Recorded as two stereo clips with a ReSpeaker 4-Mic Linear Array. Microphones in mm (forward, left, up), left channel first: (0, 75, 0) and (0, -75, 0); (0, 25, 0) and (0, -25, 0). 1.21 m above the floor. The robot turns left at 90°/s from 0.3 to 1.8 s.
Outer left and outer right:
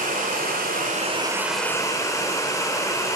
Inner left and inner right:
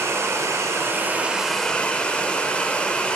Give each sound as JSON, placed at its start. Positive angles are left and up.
{"t": 0.0, "sound": "running water", "azimuth_deg": -70, "distance_m": 3.0}